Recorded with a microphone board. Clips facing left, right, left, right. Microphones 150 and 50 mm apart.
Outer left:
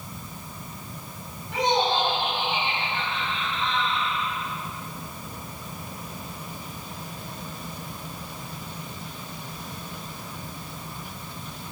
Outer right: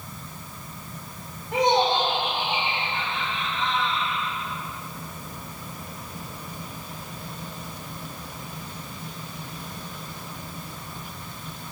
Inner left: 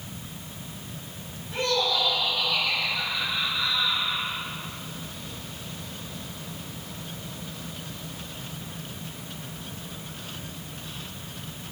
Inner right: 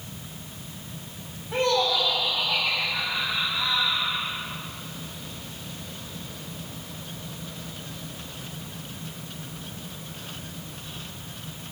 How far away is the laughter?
About 3 m.